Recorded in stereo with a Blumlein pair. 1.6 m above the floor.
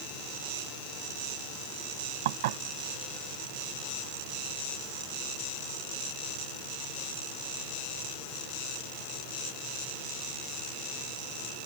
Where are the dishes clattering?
55° right.